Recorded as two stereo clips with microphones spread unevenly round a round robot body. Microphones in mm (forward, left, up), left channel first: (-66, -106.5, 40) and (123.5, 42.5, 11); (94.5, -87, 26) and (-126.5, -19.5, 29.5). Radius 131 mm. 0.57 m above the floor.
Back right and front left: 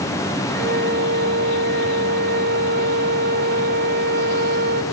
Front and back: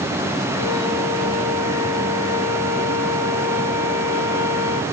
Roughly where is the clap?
No clap in this recording.